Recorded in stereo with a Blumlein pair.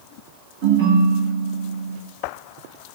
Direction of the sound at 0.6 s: 65° right.